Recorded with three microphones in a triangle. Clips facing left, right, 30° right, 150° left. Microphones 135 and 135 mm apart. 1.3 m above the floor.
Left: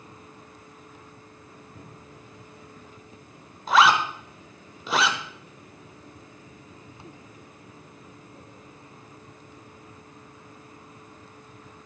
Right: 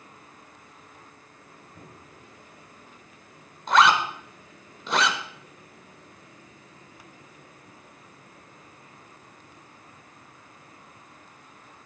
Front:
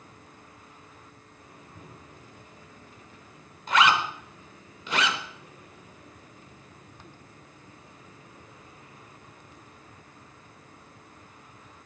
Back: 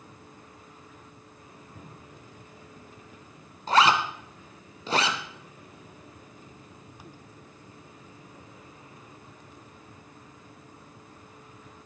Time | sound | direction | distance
1.8 | a cupboard door | 130° left | 5.5 m
3.7 | a zipper | 175° left | 1.1 m